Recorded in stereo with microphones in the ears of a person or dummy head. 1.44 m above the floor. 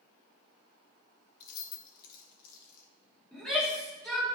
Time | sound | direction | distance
1.4 | keys jangling | 50° left (ahead or behind) | 1.1 m
3.3 | a shout | 10° left (ahead or behind) | 3 m